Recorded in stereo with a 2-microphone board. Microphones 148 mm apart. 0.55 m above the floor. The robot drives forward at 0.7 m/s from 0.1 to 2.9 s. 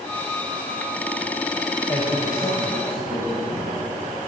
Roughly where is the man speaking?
Left.